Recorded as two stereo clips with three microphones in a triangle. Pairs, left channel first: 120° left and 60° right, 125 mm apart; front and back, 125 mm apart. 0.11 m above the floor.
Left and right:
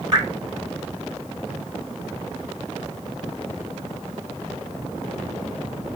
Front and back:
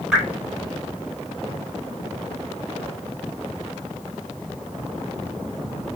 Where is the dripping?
100° right, 1.7 m.